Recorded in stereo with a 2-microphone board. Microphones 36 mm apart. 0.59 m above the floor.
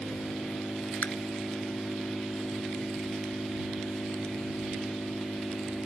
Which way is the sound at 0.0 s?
55° left (ahead or behind).